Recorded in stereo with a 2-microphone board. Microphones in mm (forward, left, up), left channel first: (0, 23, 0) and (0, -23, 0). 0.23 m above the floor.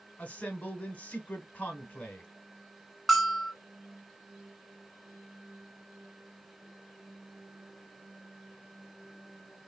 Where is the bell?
Centre (ahead or behind), 0.8 m.